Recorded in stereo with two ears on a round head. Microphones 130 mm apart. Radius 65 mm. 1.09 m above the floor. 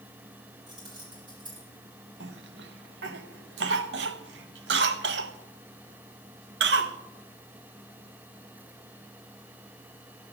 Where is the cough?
80° right, 0.8 m.